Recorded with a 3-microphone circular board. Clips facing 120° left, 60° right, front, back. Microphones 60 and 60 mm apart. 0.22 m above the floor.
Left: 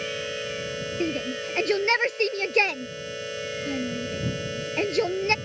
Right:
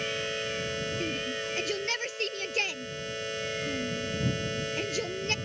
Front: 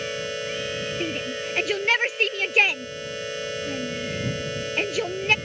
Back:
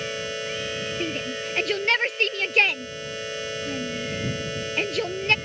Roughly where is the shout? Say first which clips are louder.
Left 5 dB, even; left.